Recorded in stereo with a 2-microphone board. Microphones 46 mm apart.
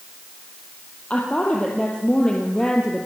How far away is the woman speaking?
About 3.5 m.